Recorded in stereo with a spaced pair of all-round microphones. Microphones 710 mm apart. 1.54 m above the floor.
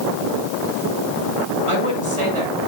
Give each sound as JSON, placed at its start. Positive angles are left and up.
{"t": 1.7, "sound": "a woman speaking", "side_deg": -45, "distance_m": 6.5}